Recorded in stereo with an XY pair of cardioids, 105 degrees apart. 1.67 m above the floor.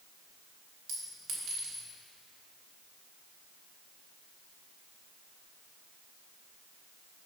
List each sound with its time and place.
0.9 s a clink: 60° right, 1.9 m